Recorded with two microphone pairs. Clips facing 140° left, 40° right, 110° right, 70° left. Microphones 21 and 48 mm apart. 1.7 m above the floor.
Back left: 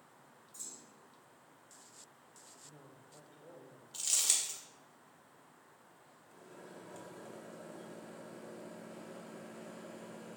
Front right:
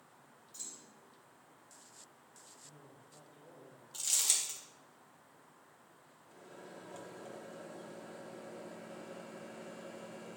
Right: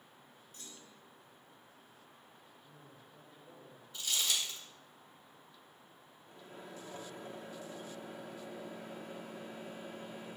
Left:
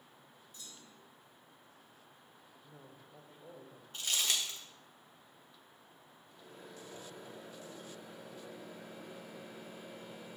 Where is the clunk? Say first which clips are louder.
Front right 1 dB, right 1 dB; 75° right, 1.8 m.